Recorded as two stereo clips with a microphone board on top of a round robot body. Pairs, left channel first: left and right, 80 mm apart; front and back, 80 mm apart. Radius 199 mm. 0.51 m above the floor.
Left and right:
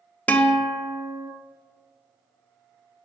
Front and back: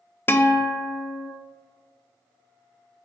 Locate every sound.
0.3 s a guitar: 35° left, 0.7 m